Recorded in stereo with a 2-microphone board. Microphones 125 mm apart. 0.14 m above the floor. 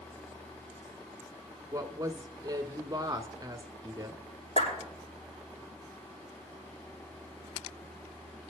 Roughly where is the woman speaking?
Right.